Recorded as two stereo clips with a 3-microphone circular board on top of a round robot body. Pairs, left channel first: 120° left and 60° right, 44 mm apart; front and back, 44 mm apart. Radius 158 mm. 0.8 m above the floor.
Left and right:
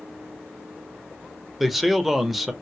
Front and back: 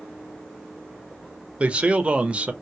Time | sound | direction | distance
1.6 | a man speaking | 145° right | 1.1 m